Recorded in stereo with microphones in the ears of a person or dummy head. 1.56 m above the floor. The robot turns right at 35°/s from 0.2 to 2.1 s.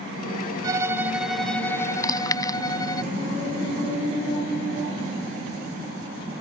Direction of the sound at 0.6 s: 25° right.